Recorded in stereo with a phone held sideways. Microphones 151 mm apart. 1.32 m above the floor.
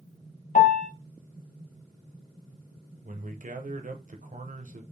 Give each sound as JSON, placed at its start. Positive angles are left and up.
{"t": 0.6, "sound": "a piano", "side_deg": 60, "distance_m": 0.9}
{"t": 3.0, "sound": "a man speaking", "side_deg": -65, "distance_m": 0.8}